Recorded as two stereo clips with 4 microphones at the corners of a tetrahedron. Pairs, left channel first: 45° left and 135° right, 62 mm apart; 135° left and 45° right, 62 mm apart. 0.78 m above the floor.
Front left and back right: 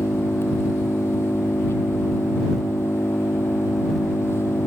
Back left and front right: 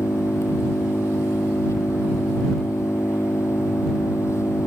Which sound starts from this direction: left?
An engine running, at 0.0 s.